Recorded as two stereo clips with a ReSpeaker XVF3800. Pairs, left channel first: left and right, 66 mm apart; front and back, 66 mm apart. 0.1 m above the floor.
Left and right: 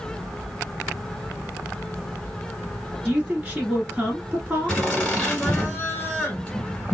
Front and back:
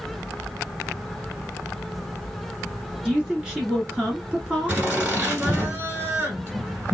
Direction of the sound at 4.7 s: 140° left.